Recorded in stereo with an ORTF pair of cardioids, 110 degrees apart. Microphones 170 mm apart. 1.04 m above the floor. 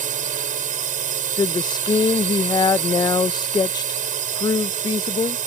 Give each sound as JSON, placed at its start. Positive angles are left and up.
{"t": 0.0, "sound": "a drone", "azimuth_deg": -50}
{"t": 1.4, "sound": "a woman speaking", "azimuth_deg": 25}